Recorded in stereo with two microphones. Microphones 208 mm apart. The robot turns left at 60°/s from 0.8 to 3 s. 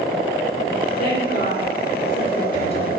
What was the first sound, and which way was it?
A woman speaking, 45° left (ahead or behind).